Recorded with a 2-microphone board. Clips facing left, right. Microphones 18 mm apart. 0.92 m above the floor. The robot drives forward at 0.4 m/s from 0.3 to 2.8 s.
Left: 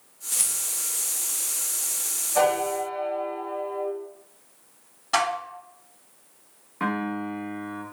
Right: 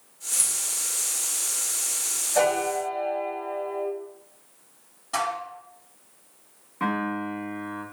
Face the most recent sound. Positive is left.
turn(degrees=20)  # may be behind; listen again after turning